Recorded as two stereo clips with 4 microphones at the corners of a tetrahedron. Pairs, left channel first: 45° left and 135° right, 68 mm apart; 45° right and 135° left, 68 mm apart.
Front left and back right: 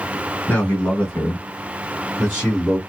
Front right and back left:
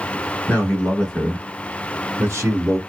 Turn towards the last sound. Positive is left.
turn(degrees=140)